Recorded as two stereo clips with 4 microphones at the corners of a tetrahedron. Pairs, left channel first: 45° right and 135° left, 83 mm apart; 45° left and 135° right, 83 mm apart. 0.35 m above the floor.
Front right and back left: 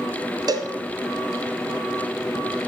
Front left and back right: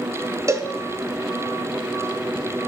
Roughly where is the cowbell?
Behind.